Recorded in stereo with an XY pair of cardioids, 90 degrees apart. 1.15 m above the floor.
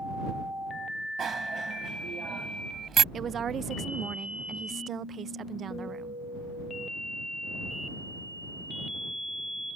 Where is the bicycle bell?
55° right.